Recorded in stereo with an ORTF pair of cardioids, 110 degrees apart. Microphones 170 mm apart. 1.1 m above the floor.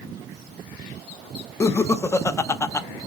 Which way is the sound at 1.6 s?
15° left.